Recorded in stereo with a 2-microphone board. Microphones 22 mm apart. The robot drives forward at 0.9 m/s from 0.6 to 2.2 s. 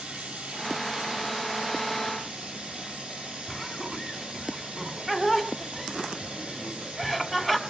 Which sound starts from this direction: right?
Running water, at 0.0 s.